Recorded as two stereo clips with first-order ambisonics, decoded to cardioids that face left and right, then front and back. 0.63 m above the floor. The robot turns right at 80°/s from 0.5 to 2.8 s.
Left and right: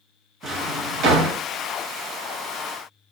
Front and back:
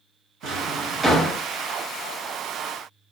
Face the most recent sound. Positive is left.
turn(degrees=35)